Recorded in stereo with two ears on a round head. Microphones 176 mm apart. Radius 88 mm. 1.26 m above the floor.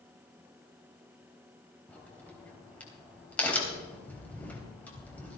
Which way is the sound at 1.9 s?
10° left (ahead or behind).